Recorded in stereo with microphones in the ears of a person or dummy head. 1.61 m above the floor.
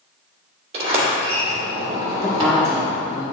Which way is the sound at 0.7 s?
40° right (ahead or behind).